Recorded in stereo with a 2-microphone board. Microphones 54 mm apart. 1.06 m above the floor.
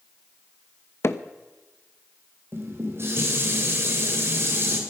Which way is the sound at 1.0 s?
55° left (ahead or behind).